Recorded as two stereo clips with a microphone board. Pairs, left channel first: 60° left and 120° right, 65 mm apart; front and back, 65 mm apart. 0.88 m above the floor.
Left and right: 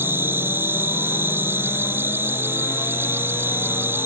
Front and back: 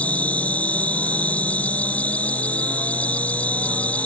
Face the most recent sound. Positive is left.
turn(degrees=-65)